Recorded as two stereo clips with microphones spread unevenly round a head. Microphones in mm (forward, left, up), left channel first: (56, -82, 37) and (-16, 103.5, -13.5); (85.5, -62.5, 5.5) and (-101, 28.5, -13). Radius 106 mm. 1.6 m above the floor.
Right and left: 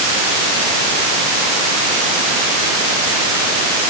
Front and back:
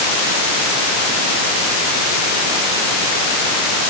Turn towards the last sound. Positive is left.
No sound to turn to.